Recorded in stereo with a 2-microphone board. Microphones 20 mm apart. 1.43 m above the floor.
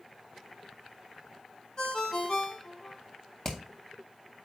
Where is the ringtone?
35° left (ahead or behind), 1.3 m.